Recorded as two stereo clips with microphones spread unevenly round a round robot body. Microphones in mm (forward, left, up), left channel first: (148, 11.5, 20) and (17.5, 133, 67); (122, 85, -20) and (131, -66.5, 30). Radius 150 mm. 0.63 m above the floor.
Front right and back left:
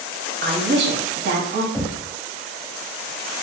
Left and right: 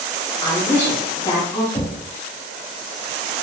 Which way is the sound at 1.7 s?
40° left.